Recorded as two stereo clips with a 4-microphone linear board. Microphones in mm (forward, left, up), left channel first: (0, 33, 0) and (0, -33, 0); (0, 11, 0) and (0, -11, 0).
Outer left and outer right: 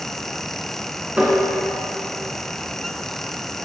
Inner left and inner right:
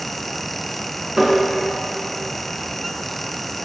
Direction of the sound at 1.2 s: 20° right (ahead or behind).